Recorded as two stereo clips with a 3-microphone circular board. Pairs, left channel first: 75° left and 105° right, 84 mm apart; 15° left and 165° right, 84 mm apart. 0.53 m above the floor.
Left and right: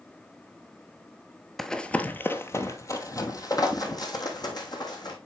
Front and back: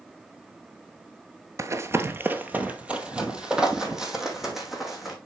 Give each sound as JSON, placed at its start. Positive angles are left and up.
{"t": 1.6, "sound": "running footsteps", "azimuth_deg": 165, "distance_m": 0.6}